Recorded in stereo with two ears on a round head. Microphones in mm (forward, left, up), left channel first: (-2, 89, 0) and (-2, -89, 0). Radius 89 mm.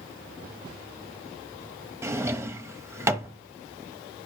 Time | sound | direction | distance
2.0 | a drawer | 15° right (ahead or behind) | 0.9 m